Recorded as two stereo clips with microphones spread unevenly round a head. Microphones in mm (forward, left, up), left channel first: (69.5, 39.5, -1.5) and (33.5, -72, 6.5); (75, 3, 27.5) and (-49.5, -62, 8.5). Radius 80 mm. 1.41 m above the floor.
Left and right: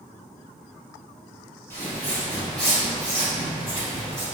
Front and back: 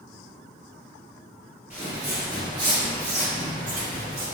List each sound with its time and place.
1.7 s footsteps: 130° left, 1.5 m; by 4.2 s 170° right, 2 m